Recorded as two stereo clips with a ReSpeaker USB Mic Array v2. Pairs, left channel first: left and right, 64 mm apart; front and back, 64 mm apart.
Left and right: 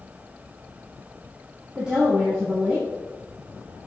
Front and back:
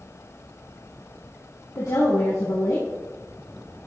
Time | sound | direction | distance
1.8 | a woman speaking | 10° right | 4 m